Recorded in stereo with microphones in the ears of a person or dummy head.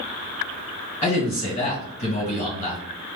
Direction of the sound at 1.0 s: 35° left (ahead or behind).